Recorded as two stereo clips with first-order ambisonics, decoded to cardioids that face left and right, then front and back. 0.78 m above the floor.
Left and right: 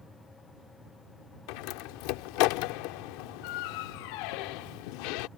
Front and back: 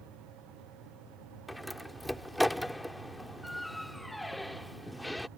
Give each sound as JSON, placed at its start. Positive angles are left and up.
{"t": 1.5, "sound": "a door slam", "azimuth_deg": 85}